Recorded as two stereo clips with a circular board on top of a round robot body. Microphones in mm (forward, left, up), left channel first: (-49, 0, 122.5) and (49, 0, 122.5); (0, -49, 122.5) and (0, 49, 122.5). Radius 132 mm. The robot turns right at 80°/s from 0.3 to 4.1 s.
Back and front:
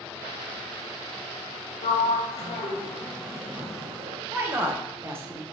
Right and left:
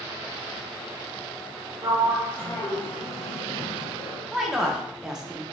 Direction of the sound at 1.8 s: 150° left.